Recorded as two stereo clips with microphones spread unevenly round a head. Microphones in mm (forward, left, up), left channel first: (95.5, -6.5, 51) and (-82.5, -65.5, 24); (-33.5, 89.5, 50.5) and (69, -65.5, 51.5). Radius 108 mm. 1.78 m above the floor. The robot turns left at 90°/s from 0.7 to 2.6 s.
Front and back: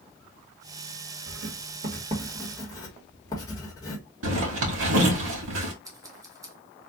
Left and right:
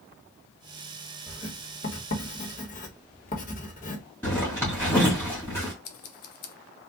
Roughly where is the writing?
Behind right.